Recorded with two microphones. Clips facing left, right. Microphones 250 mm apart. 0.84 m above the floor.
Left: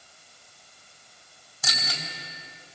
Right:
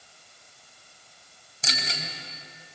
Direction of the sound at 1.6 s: 25° right (ahead or behind).